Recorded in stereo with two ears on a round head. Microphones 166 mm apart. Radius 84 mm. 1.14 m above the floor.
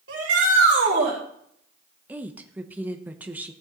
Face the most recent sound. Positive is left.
turn(degrees=-10)  # may be behind; listen again after turning